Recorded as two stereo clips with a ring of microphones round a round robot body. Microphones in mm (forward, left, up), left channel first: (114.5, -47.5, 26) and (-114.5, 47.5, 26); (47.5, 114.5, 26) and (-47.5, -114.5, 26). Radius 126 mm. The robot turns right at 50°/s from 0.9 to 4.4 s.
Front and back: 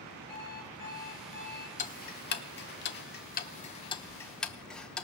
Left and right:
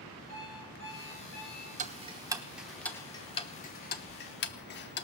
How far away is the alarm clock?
About 3.5 m.